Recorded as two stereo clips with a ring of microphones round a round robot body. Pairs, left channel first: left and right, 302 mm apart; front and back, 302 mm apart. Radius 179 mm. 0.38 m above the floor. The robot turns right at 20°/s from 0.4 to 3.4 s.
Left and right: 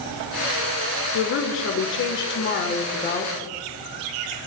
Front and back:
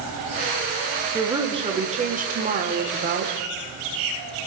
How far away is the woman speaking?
About 1.0 m.